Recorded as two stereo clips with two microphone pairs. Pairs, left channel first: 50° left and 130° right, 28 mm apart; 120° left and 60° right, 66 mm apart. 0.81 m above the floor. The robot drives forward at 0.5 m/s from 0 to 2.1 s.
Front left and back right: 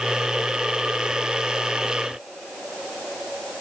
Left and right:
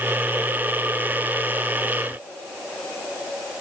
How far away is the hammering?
No hammering in this recording.